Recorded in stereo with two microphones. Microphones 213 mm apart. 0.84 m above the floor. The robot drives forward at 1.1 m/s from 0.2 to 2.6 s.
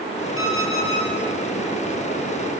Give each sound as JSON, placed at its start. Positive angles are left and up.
{"t": 0.4, "sound": "an alarm clock", "side_deg": 80, "distance_m": 7.0}